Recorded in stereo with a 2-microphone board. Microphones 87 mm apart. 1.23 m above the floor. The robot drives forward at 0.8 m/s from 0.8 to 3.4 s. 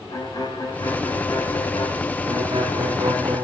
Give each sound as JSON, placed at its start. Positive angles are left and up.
{"t": 0.1, "sound": "a violin", "side_deg": 50, "distance_m": 5.0}
{"t": 2.2, "sound": "a violin", "side_deg": -50, "distance_m": 9.5}